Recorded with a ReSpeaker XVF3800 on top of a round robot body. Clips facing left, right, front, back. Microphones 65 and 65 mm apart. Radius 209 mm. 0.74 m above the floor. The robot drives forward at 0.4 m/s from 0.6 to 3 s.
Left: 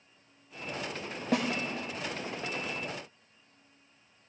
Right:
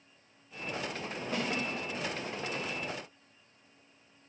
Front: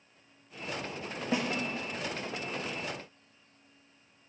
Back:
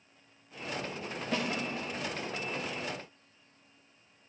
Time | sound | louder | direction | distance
1.3 | a snare drum | left 6 dB, front 2 dB | 75° left | 1.6 m